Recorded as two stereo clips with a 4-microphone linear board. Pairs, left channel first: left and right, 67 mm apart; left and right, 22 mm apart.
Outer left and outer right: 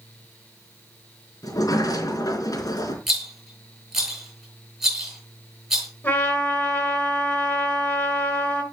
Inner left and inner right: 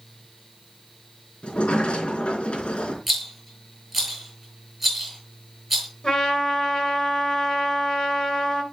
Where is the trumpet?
25° left (ahead or behind), 7 m.